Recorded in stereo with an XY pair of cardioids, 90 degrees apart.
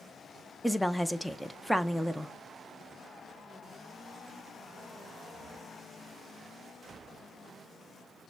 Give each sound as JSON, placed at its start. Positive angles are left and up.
{"t": 0.6, "sound": "a woman speaking", "azimuth_deg": 0, "distance_m": 0.6}